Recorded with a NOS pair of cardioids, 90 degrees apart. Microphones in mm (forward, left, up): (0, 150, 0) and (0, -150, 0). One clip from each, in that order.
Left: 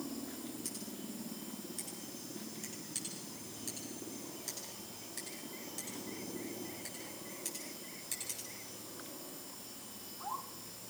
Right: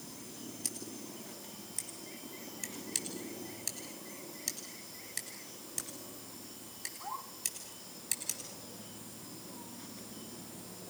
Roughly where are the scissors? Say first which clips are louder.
Right 2 dB; ahead right.